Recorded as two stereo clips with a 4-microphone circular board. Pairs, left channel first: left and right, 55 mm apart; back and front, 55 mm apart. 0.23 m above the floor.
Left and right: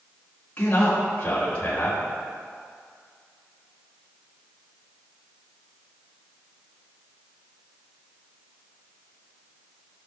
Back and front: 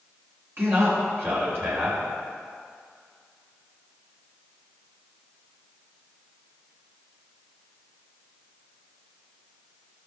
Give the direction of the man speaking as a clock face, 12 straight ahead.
11 o'clock.